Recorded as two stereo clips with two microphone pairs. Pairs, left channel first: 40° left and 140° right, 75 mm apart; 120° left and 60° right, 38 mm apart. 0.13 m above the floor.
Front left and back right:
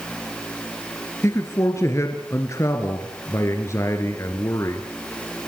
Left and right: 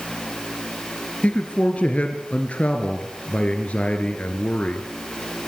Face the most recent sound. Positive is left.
turn(degrees=75)